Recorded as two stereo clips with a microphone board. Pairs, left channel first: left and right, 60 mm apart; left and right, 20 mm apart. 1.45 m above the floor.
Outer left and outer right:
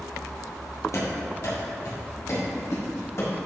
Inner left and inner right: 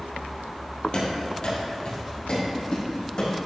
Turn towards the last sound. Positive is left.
turn(degrees=50)  # may be behind; listen again after turning